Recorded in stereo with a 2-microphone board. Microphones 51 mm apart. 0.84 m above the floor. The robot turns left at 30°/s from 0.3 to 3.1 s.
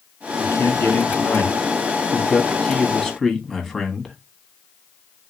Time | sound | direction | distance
0.4 | a man speaking | 80° left | 1.2 m